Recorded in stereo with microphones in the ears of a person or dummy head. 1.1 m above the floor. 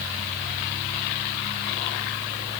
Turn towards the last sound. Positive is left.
No sound to turn to.